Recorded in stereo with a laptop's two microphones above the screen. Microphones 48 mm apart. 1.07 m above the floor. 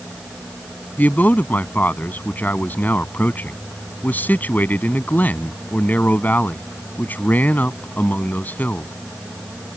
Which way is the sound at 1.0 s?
35° left (ahead or behind).